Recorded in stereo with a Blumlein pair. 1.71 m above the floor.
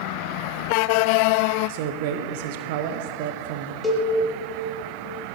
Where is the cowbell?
15° left, 4 m.